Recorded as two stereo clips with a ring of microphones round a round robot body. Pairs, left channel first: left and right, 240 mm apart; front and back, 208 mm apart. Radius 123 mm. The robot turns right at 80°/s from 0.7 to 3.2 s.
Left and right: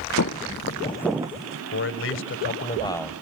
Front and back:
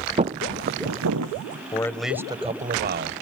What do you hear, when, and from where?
0.2 s footsteps: 120° left, 0.6 m; by 1.6 s 135° right, 1.2 m
1.7 s a man speaking: 65° left, 1.6 m; by 3.1 s straight behind, 1.6 m